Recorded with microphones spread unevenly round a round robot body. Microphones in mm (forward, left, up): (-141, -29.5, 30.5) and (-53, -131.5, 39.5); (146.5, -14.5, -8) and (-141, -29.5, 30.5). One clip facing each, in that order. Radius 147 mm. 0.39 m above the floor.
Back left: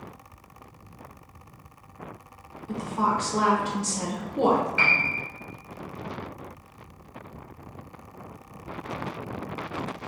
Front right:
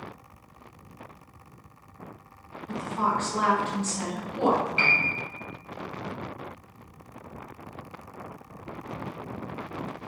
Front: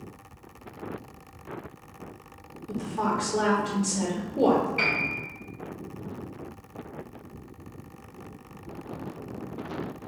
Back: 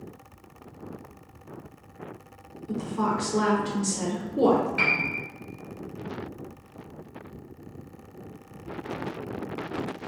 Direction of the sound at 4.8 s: 115° right.